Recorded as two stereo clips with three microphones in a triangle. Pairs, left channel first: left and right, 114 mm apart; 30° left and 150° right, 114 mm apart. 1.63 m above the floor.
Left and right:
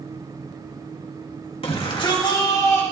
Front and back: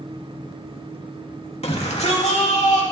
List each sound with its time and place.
1.6 s a shout: 55° left, 2.5 m; by 2.8 s 25° left, 2.5 m